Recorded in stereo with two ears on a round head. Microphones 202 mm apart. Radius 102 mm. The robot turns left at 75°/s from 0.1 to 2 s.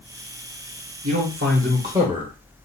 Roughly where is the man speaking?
Right.